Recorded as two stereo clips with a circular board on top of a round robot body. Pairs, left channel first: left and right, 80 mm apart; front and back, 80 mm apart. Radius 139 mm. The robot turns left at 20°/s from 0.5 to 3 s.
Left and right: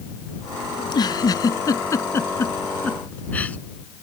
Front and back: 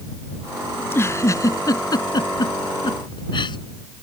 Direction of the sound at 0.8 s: 65° left.